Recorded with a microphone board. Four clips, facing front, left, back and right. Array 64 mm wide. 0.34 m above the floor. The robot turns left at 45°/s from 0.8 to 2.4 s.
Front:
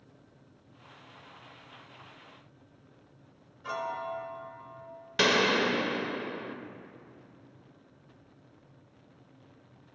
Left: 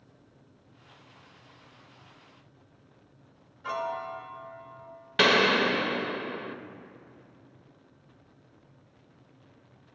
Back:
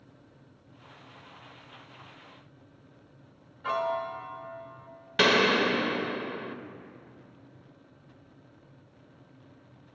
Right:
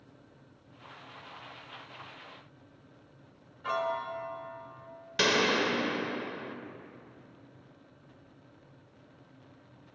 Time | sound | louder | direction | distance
3.6 | a piano | right 1 dB, back 5 dB | 165° right | 0.8 m
5.2 | a gunshot | left 5 dB, back 2 dB | 120° left | 0.6 m